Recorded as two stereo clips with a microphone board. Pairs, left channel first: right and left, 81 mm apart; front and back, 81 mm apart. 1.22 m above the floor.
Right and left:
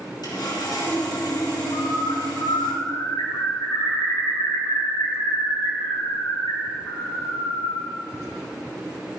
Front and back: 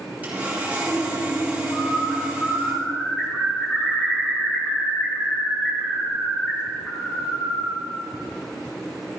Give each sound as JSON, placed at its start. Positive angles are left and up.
{"t": 0.2, "sound": "sawing", "azimuth_deg": -110, "distance_m": 4.0}
{"t": 1.7, "sound": "a bird", "azimuth_deg": -80, "distance_m": 4.0}